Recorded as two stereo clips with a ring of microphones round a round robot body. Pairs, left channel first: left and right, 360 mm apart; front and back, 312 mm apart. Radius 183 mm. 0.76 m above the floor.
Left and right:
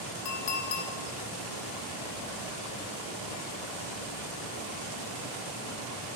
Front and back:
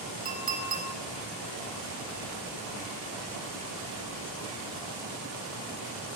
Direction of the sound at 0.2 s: 115° left.